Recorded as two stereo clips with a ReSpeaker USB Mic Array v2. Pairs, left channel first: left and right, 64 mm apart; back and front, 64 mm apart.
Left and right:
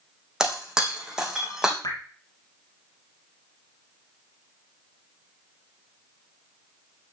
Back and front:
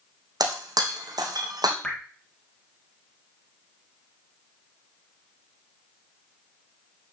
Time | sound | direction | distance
0.4 | breaking glass | 10° right | 3 m
1.8 | dripping | 105° left | 2.5 m